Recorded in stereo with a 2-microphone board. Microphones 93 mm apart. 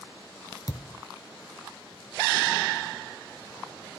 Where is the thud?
40° left (ahead or behind), 1.8 m.